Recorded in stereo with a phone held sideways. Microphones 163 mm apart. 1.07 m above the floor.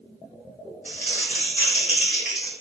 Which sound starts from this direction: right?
Crumpling, at 0.8 s.